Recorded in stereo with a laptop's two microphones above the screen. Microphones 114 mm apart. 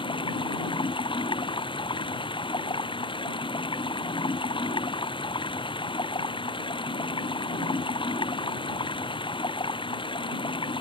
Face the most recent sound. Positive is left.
turn(degrees=45)  # may be behind; listen again after turning